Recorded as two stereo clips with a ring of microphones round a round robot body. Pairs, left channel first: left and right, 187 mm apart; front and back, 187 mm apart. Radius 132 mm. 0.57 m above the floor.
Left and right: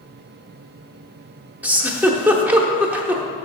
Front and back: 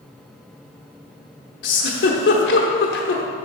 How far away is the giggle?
About 0.9 m.